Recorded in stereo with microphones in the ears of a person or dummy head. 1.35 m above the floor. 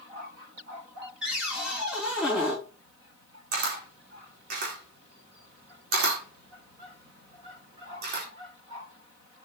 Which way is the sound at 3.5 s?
55° right (ahead or behind).